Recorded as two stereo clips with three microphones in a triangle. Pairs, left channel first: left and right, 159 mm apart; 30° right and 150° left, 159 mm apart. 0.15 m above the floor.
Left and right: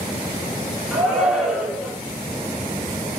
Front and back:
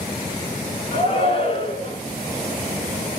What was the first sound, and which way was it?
A shout, 10° right.